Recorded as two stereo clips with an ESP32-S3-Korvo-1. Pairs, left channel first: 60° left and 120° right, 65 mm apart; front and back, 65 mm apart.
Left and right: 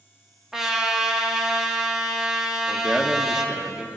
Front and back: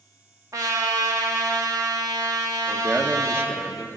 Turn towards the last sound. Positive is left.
turn(degrees=170)